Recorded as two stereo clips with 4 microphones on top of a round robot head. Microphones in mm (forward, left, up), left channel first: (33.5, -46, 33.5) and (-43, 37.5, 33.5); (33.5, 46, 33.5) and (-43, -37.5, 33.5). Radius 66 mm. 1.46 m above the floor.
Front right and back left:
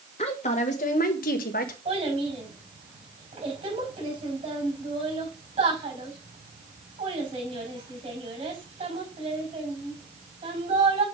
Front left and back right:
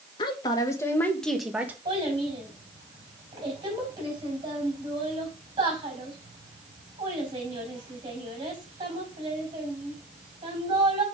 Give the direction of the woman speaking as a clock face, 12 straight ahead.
12 o'clock.